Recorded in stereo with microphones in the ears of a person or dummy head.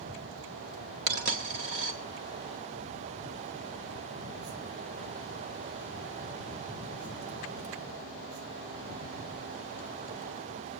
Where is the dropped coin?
50° right (ahead or behind), 1.8 m.